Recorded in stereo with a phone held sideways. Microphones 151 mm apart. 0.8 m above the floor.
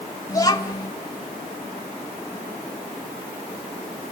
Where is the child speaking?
25° left (ahead or behind), 2.5 m.